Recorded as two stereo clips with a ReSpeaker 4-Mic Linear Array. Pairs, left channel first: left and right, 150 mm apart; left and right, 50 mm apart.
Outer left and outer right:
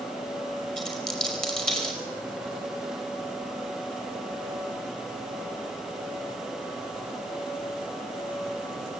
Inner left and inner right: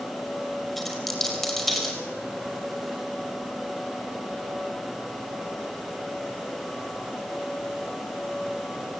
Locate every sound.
0.8 s a dropped coin: 5° left (ahead or behind), 5.5 m